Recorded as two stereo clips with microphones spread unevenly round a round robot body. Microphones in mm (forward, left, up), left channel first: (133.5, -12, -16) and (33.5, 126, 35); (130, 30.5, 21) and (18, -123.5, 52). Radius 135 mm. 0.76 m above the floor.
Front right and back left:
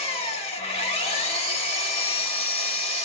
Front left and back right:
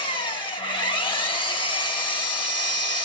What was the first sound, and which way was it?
An engine running, 10° right.